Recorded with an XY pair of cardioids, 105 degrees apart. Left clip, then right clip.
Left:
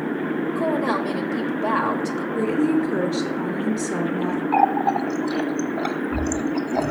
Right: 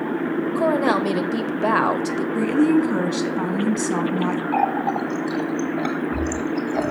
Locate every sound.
0.6 s a woman speaking: 45° right, 1.0 m
2.4 s a woman speaking: 65° right, 1.5 m
4.5 s a running tap: 15° left, 1.0 m